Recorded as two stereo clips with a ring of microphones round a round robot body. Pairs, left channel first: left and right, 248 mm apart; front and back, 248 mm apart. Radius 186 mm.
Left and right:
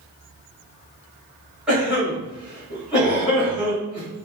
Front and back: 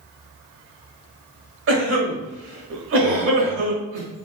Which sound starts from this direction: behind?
A cough, at 1.7 s.